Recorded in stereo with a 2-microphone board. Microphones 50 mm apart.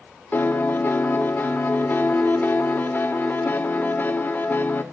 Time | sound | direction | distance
0.3 | a piano | 40° left (ahead or behind) | 2.5 m